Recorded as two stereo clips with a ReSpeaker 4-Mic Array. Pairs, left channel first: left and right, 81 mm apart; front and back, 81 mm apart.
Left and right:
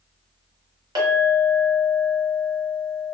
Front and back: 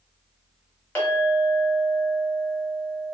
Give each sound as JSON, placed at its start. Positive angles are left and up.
{"t": 0.9, "sound": "a clink", "azimuth_deg": -65, "distance_m": 1.1}